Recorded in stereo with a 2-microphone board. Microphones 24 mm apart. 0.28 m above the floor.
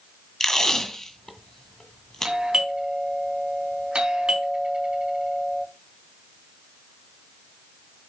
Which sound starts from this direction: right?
A doorbell, at 2.2 s.